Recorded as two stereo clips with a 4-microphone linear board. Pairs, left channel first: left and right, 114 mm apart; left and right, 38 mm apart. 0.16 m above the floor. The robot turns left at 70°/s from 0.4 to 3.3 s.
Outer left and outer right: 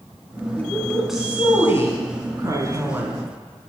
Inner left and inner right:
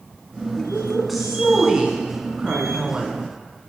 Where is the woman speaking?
30° left, 1.2 m; by 3.2 s 150° right, 1.2 m.